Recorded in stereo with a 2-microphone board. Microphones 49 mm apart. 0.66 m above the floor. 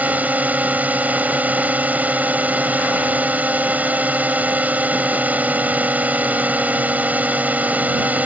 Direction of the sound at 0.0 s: 35° right (ahead or behind).